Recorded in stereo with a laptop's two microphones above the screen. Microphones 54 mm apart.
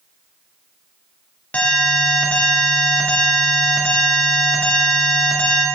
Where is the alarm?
25° left (ahead or behind), 1.5 m.